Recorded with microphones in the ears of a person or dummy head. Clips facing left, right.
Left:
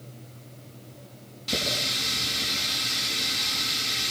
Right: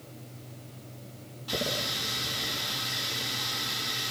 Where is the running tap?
35° left (ahead or behind), 9.5 m.